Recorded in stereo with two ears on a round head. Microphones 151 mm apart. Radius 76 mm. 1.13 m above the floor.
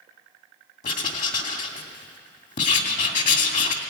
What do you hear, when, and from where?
0.8 s writing: 50° left (ahead or behind), 2.5 m